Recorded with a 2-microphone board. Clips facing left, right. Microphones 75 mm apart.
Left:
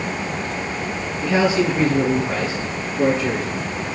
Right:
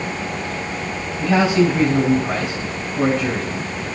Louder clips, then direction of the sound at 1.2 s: Right 2 dB; 75° right (ahead or behind).